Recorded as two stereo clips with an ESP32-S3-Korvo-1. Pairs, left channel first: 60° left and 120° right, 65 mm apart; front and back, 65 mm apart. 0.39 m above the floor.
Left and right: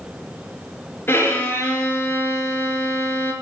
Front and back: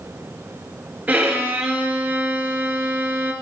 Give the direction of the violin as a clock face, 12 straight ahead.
8 o'clock.